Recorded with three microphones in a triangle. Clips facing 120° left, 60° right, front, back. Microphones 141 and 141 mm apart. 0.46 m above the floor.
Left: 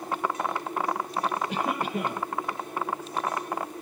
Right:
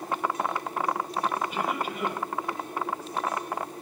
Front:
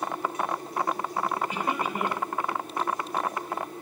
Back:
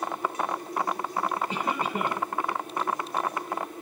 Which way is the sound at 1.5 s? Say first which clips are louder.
Left 1 dB, even; 120° left.